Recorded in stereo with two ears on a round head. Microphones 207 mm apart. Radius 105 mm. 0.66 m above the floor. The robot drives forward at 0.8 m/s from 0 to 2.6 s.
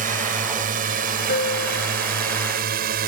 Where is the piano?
50° left (ahead or behind); by 2.0 s 45° left (ahead or behind).